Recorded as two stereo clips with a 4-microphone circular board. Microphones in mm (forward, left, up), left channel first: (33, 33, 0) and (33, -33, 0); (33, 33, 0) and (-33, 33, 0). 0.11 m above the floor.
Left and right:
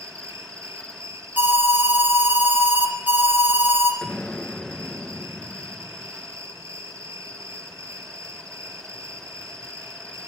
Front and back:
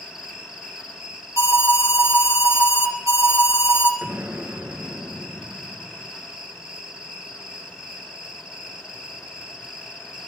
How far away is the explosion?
About 0.7 m.